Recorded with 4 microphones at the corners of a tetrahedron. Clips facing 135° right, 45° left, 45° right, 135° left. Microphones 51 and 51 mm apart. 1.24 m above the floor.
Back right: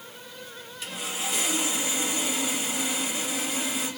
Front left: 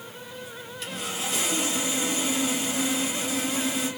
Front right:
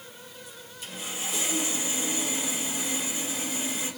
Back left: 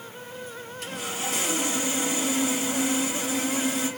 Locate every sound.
0.8 s sawing: 145° left, 1.6 m